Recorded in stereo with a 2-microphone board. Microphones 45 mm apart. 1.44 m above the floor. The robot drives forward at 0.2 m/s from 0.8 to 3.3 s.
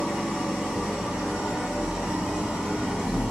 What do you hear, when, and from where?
0.0 s an engine running: 10° right (ahead or behind), 2.5 m